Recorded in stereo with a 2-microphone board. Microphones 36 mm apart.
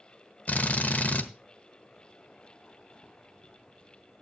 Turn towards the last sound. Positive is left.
turn(degrees=45)  # may be behind; listen again after turning